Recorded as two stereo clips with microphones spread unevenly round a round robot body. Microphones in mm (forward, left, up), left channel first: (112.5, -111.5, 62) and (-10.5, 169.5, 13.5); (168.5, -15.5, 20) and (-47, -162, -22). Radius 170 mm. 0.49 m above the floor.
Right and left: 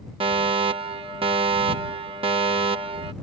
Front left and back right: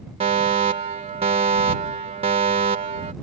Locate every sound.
0.2 s a fire alarm: 165° left